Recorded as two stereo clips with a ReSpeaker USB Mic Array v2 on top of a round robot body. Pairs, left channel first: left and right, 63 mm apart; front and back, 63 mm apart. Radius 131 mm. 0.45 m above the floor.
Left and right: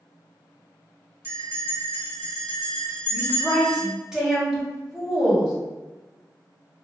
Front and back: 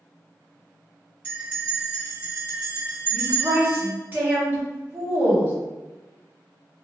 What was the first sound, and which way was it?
A bell, 135° right.